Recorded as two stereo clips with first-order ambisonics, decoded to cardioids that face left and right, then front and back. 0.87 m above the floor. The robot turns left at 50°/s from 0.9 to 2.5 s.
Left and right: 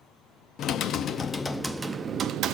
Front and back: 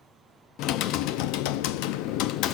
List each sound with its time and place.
0.6 s typing on a keyboard: 35° left, 0.6 m; by 2.5 s 45° right, 0.6 m